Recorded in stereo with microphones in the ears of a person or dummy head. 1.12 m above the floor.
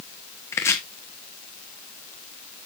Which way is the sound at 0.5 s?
10° left (ahead or behind).